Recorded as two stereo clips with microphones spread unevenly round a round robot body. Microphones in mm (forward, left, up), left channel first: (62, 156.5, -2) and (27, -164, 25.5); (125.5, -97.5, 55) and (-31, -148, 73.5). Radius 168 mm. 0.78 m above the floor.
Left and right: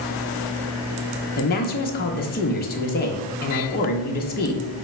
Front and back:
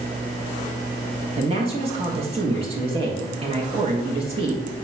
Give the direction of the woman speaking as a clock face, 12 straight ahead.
7 o'clock.